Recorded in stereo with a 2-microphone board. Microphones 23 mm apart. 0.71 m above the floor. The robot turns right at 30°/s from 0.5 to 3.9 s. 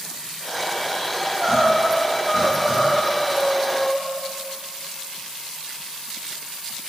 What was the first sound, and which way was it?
Crying, 55° right.